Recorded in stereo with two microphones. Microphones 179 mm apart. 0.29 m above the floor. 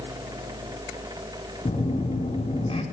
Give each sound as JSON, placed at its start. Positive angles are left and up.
{"t": 1.6, "sound": "a phone buzzing", "side_deg": 35, "distance_m": 3.5}